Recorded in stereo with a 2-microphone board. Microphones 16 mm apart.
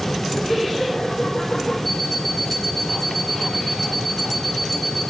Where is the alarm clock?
10° left (ahead or behind), 6 m.